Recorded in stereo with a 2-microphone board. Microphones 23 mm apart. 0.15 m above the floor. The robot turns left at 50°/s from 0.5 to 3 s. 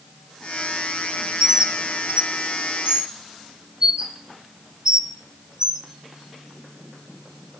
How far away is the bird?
About 0.7 m.